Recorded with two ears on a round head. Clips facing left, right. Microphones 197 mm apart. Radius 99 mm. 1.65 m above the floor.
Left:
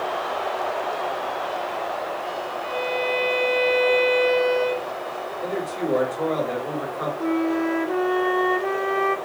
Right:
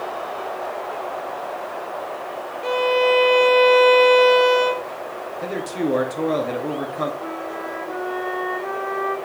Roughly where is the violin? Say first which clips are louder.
Right 9 dB; right.